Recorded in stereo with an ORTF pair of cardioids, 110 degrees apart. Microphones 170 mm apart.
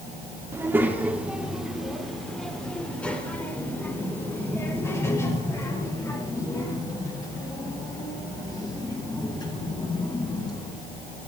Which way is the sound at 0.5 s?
15° right.